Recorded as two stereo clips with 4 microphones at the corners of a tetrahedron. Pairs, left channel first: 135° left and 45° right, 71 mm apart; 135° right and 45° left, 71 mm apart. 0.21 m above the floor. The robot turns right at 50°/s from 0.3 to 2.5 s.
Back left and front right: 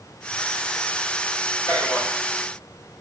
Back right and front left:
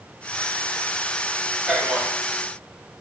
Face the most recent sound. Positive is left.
turn(degrees=155)